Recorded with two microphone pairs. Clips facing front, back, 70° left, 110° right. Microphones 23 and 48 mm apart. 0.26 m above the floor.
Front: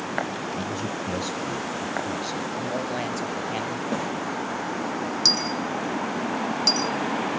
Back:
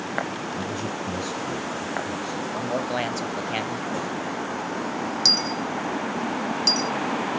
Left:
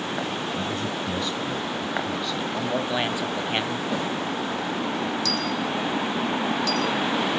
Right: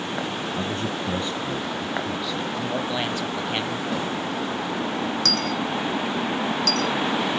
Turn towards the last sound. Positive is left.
turn(degrees=-85)